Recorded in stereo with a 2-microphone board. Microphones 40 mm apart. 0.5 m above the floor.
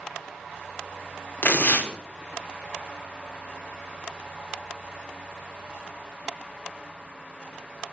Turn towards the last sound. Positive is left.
turn(degrees=55)  # may be behind; listen again after turning